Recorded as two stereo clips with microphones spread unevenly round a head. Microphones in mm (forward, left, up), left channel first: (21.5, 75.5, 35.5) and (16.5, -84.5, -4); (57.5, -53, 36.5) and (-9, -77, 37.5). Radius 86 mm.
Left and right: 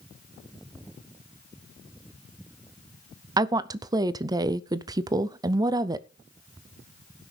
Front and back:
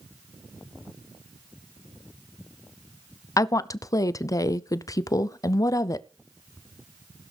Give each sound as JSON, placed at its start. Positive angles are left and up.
{"t": 3.4, "sound": "a woman speaking", "azimuth_deg": -20, "distance_m": 0.6}